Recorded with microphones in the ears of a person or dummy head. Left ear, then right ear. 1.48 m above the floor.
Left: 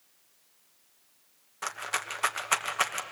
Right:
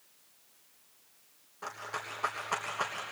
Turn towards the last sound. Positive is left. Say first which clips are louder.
# left 6 dB
turn(degrees=45)  # may be behind; listen again after turning